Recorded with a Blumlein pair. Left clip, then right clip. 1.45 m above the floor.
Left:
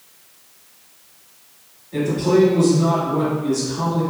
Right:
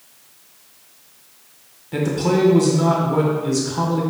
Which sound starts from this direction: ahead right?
A man speaking, at 1.9 s.